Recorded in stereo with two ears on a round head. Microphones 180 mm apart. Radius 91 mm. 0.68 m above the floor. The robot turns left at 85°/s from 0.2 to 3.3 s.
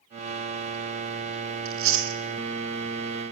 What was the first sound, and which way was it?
Chewing, 75° right (ahead or behind).